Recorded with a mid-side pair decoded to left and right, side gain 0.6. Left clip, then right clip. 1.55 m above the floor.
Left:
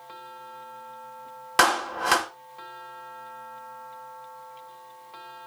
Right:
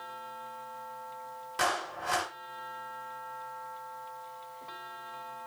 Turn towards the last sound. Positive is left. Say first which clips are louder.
# left 10 dB
turn(degrees=65)